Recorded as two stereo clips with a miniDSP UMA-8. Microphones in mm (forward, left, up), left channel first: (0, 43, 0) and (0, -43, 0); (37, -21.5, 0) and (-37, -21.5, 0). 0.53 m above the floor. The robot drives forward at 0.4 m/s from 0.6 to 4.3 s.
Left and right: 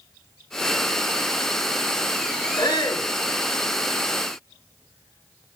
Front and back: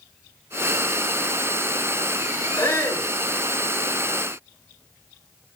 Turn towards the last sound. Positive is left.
turn(degrees=70)